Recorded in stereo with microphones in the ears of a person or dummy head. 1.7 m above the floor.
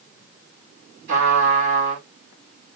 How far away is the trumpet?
About 3 m.